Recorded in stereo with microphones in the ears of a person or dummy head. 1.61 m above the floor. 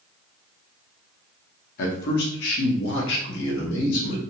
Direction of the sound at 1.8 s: 60° left (ahead or behind).